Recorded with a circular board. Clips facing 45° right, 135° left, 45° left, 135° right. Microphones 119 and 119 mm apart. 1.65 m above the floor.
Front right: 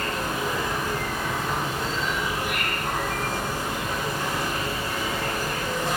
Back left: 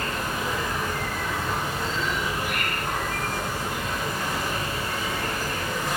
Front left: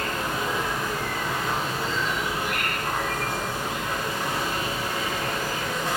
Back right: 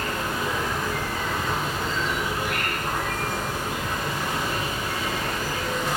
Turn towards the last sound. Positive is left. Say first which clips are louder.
# front right 1 dB, even
turn(degrees=0)